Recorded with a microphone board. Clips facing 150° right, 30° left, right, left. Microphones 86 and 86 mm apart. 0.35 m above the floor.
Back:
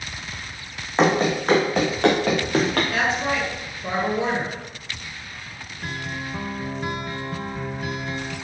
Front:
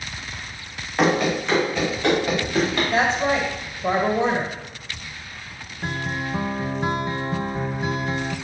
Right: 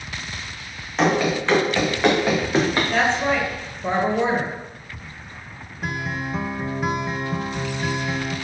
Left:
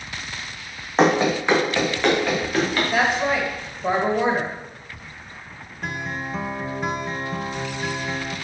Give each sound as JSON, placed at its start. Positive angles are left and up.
{"t": 1.0, "sound": "running footsteps", "azimuth_deg": 145, "distance_m": 1.7}
{"t": 2.9, "sound": "a woman speaking", "azimuth_deg": 20, "distance_m": 1.7}
{"t": 5.8, "sound": "a guitar", "azimuth_deg": -5, "distance_m": 0.5}